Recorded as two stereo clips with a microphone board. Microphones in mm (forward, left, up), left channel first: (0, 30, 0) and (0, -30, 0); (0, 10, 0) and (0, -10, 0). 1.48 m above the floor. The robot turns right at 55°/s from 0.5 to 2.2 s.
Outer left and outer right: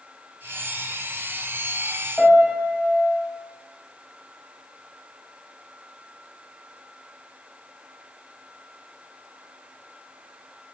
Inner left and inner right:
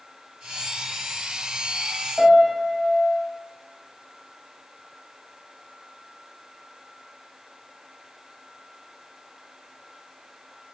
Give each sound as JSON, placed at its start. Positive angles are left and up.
{"t": 2.2, "sound": "a piano", "side_deg": 5, "distance_m": 1.8}